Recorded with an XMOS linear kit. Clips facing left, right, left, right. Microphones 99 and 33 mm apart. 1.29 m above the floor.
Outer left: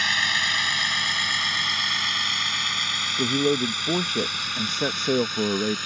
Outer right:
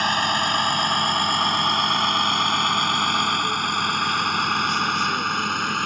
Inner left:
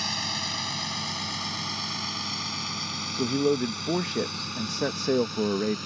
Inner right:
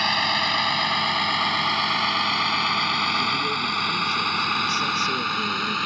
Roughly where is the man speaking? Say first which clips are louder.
Outer left 1 dB, inner right 2 dB; left.